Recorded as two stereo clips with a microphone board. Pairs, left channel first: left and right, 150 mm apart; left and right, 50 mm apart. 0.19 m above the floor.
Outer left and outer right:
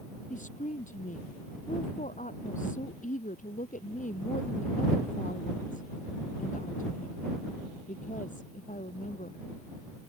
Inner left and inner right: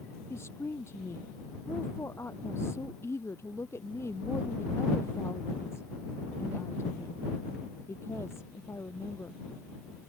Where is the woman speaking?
60° left (ahead or behind).